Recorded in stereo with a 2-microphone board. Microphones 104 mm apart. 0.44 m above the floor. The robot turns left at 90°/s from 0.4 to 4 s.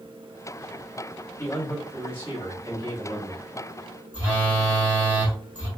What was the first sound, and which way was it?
A man speaking, 45° left.